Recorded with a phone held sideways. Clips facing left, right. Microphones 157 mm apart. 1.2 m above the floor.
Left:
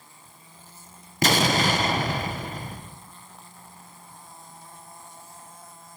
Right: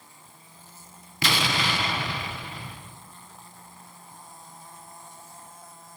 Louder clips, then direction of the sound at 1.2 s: Left 6 dB; 45° left (ahead or behind).